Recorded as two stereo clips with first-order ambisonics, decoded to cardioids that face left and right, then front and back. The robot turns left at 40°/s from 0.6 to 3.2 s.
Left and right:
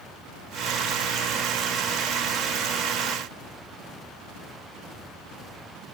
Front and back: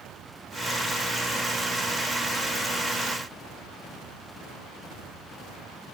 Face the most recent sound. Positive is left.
No sound to turn to.